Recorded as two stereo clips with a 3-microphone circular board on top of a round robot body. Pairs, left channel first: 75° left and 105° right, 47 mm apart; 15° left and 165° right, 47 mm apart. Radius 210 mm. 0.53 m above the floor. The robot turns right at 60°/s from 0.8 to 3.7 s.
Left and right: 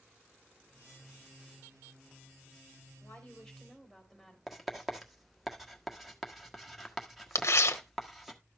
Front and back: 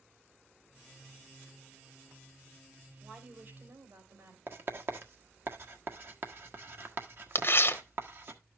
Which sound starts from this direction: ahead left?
Tearing paper, at 7.3 s.